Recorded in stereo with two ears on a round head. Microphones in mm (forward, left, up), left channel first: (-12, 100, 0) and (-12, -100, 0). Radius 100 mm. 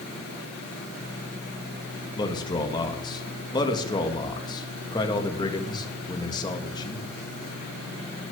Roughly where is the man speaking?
Centre.